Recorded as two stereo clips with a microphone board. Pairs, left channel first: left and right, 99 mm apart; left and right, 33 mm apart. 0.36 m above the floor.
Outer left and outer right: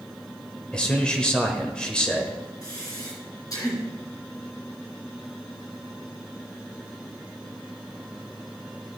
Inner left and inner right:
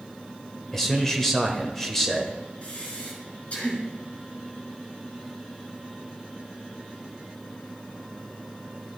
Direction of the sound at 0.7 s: 10° left (ahead or behind).